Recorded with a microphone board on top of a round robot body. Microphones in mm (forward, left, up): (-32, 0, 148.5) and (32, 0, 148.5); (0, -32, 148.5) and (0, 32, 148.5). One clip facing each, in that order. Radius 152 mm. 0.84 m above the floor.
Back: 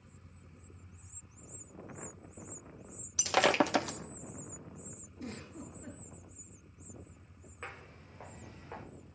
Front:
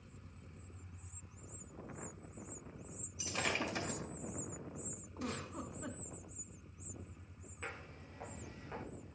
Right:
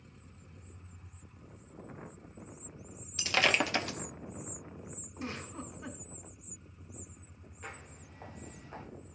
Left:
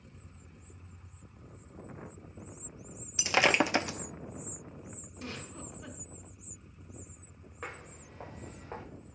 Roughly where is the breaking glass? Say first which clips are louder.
Back 11 dB, left 3 dB; behind.